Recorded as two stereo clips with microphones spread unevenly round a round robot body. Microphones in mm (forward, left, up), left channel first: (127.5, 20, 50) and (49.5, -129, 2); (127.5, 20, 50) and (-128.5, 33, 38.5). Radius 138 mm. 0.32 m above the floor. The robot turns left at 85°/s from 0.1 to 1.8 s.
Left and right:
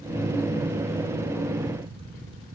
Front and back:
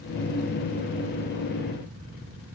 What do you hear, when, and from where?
Only background noise.